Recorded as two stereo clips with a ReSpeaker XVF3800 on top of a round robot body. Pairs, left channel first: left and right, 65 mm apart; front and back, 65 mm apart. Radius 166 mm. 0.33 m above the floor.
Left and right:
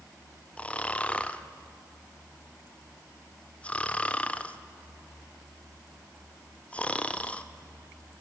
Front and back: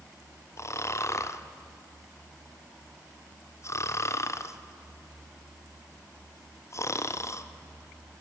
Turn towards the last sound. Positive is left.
turn(degrees=25)